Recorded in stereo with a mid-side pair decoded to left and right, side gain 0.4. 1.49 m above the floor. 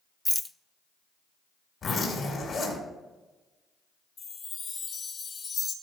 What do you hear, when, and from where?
0.2 s a rattle: 15° left, 0.6 m
1.8 s a zipper: 60° left, 5.5 m
4.2 s a chime: 55° left, 3 m